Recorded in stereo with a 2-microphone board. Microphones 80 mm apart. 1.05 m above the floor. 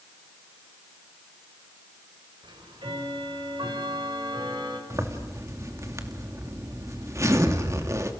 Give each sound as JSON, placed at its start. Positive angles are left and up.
{"t": 2.4, "sound": "ticking", "side_deg": -80, "distance_m": 5.5}
{"t": 4.9, "sound": "a zipper", "side_deg": -40, "distance_m": 2.5}